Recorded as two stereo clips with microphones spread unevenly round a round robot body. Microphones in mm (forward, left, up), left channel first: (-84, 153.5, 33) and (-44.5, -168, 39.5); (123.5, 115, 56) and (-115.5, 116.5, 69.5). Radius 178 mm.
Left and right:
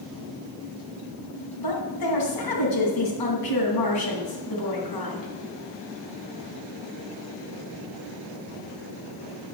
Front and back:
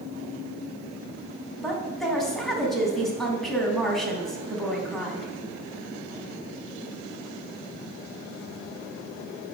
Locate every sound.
1.6 s a woman speaking: 90° left, 3.5 m